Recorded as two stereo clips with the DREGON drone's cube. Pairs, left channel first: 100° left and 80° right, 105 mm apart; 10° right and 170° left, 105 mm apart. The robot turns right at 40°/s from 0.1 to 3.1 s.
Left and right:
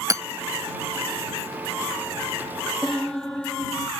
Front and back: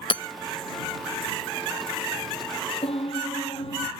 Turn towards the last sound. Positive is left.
turn(degrees=15)